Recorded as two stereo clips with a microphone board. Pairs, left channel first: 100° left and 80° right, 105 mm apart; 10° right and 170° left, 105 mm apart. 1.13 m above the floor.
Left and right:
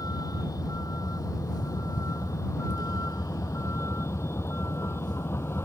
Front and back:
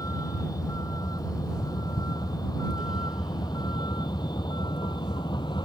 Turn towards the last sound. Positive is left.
turn(degrees=35)